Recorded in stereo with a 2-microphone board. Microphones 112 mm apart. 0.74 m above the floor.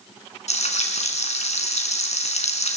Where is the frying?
90° left, 3.5 m.